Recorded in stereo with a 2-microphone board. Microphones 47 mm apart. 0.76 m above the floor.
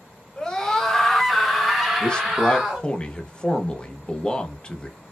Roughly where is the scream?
Centre.